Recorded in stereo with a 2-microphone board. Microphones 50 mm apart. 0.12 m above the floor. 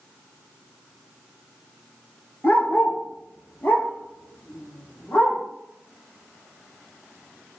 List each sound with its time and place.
2.4 s a dog barking: 45° left (ahead or behind), 0.5 m; by 5.4 s 25° left (ahead or behind), 1.7 m